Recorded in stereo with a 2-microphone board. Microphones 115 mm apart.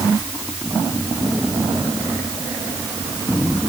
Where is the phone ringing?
I don't hear a phone ringing.